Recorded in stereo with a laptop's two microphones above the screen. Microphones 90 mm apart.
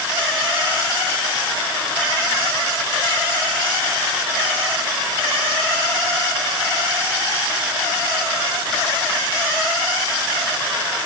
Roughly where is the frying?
No frying in this recording.